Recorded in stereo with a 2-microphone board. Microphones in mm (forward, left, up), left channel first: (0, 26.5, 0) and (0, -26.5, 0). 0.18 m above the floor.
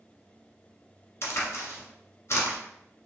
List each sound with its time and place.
1.2 s a crack: 55° left (ahead or behind), 1.4 m